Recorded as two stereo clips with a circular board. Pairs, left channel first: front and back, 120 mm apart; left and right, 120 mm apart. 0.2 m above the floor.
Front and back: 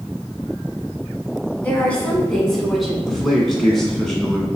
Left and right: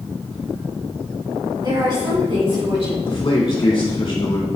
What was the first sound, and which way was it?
A woman speaking, 65° right.